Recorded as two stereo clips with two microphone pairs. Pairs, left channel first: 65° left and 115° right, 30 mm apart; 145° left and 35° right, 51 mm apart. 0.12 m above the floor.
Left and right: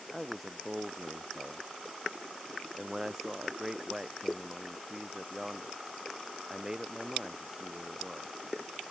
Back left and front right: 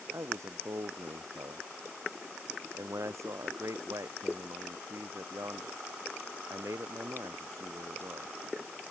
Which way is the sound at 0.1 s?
40° right.